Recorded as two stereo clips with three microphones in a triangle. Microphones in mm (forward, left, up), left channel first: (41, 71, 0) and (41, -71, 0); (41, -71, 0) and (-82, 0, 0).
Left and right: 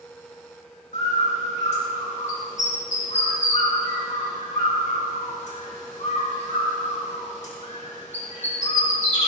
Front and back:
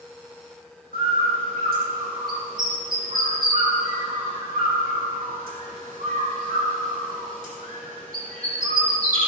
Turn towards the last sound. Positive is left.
turn(degrees=130)